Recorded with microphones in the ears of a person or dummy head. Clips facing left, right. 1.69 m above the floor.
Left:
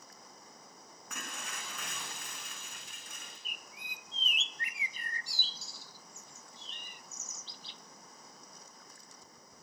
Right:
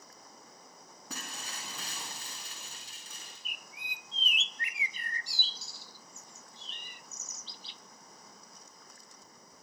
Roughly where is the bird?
Right.